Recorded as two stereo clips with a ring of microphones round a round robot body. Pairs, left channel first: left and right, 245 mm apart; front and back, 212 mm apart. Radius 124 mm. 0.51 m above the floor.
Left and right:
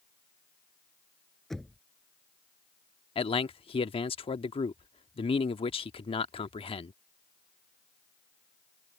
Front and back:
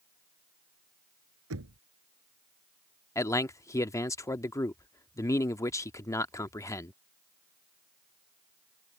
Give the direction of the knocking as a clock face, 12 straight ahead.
6 o'clock.